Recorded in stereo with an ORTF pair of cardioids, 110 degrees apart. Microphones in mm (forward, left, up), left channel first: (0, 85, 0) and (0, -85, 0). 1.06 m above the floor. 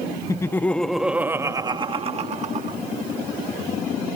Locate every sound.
0.3 s laughter: 20° left; by 2.8 s 50° right